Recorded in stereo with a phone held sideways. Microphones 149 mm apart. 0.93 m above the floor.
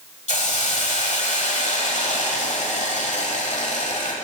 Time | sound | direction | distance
0.3 | a hiss | 50° left (ahead or behind) | 1.1 m